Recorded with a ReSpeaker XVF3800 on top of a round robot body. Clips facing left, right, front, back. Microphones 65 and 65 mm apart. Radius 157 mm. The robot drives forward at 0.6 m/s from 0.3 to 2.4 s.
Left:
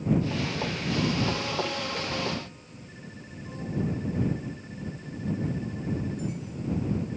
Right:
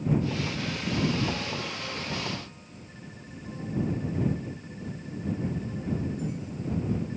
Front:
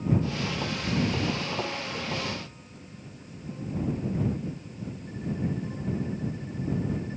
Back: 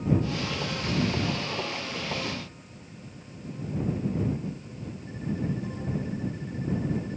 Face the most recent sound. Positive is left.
No sound to turn to.